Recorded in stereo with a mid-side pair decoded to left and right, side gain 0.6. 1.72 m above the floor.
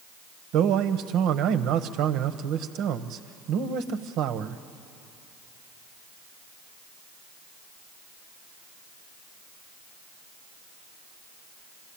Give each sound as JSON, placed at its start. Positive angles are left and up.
{"t": 0.5, "sound": "a man speaking", "azimuth_deg": -65, "distance_m": 1.2}